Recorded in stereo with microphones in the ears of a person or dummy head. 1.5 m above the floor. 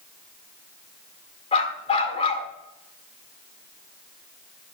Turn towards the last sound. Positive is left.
turn(degrees=25)  # may be behind; listen again after turning